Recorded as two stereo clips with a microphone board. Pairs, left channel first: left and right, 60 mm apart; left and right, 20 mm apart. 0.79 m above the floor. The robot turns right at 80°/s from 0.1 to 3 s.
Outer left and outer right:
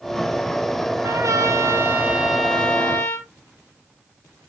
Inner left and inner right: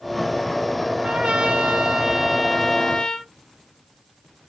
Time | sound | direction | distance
1.0 | a trumpet | 110° right | 2.0 m